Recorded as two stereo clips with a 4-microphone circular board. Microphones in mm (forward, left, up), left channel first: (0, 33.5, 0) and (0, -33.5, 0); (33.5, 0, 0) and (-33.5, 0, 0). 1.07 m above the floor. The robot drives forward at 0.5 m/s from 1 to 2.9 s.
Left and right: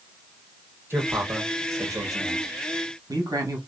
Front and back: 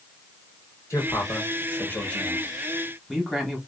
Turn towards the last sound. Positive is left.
turn(degrees=-100)